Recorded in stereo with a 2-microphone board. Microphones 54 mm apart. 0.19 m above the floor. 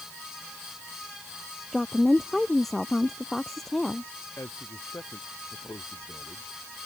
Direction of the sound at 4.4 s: 60° left (ahead or behind).